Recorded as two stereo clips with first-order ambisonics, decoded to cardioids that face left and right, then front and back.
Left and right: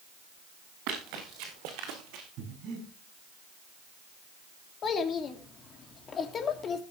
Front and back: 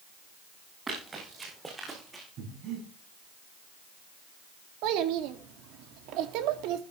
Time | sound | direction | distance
0.9 | running footsteps | 105° right | 6.5 m
2.4 | breathing | 135° right | 6.5 m
4.8 | a child speaking | 155° left | 2.5 m